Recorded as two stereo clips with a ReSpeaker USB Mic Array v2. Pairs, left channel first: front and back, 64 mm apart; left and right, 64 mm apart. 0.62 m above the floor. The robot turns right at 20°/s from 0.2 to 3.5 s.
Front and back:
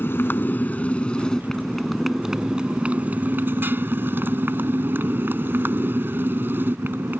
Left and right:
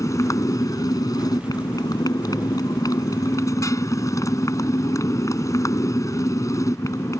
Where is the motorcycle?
55° left; by 7.2 s 125° left.